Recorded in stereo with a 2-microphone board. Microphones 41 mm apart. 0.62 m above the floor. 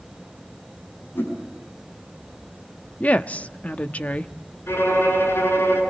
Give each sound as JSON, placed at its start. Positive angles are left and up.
{"t": 1.1, "sound": "a whoosh", "side_deg": 60, "distance_m": 8.0}
{"t": 3.0, "sound": "a woman speaking", "side_deg": 35, "distance_m": 0.8}
{"t": 4.7, "sound": "a violin", "side_deg": 65, "distance_m": 9.0}